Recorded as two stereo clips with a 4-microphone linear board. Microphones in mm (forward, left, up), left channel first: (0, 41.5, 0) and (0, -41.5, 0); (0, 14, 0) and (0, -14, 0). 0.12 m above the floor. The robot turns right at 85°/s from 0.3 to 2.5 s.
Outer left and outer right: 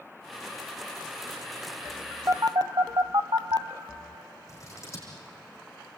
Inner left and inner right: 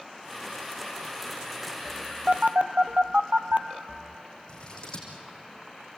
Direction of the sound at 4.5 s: 35° left (ahead or behind).